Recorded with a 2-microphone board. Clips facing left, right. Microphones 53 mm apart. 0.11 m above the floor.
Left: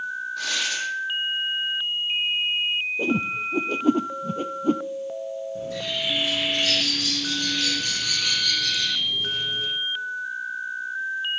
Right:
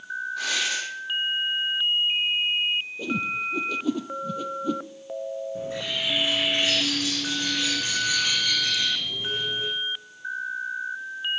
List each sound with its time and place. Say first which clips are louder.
0.4 s tearing paper: right 1 dB; 10° right (ahead or behind), 5 m
3.0 s a whoosh: left 4 dB; 40° left (ahead or behind), 0.7 m
5.5 s a bird: left 1 dB; 25° right (ahead or behind), 4.5 m